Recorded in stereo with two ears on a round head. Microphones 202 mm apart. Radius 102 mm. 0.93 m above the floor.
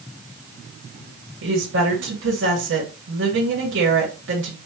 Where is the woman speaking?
55° right (ahead or behind), 2 m.